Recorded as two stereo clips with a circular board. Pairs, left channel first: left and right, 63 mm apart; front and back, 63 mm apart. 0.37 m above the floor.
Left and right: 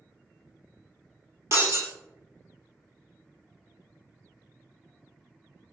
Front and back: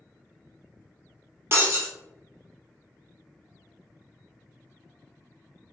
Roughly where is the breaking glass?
Behind right.